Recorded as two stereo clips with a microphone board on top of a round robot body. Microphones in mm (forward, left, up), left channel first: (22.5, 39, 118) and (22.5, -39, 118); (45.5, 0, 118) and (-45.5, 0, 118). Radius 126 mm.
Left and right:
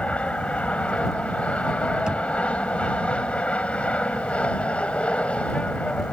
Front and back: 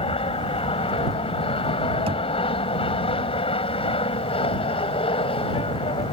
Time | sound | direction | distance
0.0 | an aircraft | 15° left | ?
2.1 | knocking | 170° right | ?